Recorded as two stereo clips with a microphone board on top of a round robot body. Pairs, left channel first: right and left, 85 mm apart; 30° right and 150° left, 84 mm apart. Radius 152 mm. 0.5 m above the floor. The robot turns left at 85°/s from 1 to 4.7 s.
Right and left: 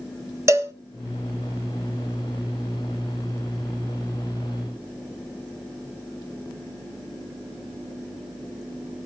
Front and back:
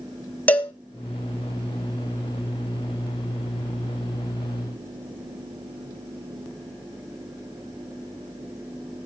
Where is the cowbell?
40° left, 1.3 m.